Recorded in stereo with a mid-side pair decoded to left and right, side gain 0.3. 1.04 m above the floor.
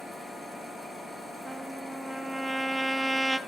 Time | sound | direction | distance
1.4 | a trumpet | 35° right | 2 m